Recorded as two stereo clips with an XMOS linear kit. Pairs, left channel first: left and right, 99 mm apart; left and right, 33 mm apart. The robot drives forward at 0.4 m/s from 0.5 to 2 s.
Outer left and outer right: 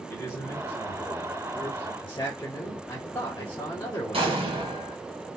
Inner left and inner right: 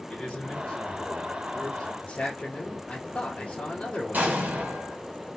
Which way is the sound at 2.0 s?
35° left (ahead or behind).